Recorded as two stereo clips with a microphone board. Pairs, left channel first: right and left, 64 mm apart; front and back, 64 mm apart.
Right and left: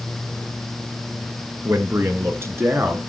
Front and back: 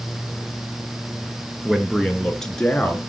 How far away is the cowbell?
I don't hear a cowbell.